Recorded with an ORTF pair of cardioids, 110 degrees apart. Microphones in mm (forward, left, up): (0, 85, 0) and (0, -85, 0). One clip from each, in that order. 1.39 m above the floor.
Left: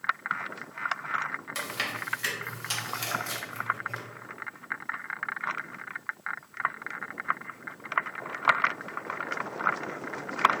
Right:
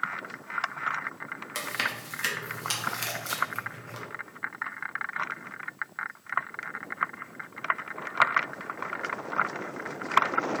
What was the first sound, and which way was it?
Chewing, 20° right.